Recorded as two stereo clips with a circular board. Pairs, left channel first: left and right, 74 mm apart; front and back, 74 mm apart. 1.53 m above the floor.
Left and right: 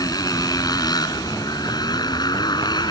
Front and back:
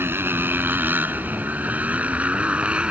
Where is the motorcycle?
120° left; by 2.9 s 105° left.